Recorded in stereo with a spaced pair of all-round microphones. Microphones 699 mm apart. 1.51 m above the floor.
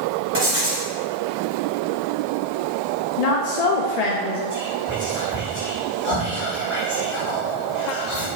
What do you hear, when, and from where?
0.3 s writing: 20° right (ahead or behind), 1.9 m
3.2 s a woman speaking: 65° left (ahead or behind), 0.7 m
4.5 s whispering: 45° left (ahead or behind), 2.5 m